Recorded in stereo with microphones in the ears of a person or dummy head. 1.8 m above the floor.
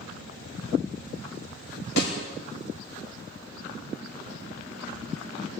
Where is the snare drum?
70° left (ahead or behind), 9.5 m.